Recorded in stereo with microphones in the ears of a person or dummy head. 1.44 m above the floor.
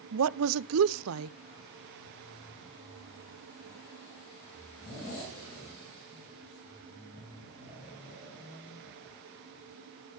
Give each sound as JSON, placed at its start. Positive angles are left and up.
{"t": 0.1, "sound": "a woman speaking", "side_deg": -75, "distance_m": 0.6}